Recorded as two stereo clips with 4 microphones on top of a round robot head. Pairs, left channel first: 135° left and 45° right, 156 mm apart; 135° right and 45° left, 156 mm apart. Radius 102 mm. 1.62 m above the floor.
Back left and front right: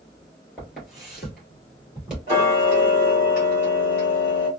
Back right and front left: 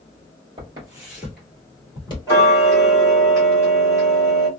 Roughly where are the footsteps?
Ahead left.